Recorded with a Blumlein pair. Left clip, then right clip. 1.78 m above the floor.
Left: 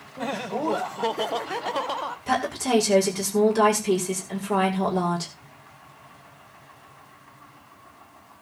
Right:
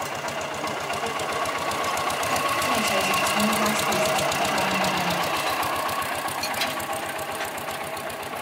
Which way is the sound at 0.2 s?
35° left.